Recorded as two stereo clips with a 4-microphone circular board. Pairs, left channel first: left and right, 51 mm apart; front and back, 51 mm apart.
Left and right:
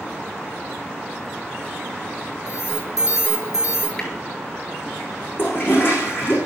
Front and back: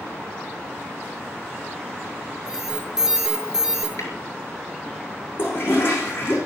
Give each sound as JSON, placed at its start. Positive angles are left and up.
{"t": 2.5, "sound": "an alarm", "azimuth_deg": 100, "distance_m": 5.5}
{"t": 4.0, "sound": "a snare drum", "azimuth_deg": 20, "distance_m": 6.0}
{"t": 5.4, "sound": "a toilet flushing", "azimuth_deg": 45, "distance_m": 7.5}